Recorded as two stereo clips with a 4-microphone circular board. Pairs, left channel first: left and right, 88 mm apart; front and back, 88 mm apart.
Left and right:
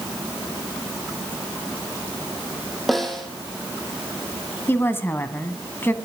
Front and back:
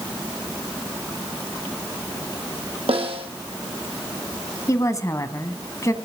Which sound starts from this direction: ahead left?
A woman speaking, at 4.7 s.